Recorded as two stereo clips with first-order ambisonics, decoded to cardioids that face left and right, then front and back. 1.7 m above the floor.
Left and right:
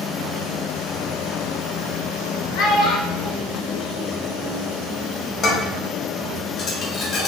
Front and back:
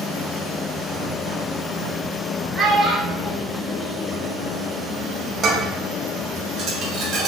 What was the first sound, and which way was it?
A child speaking, 85° left.